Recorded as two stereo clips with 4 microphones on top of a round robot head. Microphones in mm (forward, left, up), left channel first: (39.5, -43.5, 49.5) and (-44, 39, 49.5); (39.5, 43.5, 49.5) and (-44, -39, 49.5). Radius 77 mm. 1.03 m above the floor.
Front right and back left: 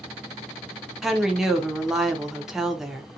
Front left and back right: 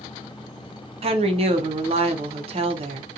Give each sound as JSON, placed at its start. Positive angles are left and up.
{"t": 1.0, "sound": "a woman speaking", "azimuth_deg": -140, "distance_m": 0.7}